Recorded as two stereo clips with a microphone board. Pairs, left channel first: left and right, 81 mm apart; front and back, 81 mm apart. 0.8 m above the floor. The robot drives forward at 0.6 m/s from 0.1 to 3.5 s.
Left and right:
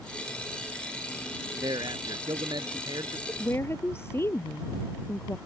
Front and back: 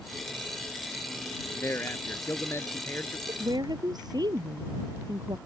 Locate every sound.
1.5 s a man speaking: 60° right
3.3 s a woman speaking: 150° left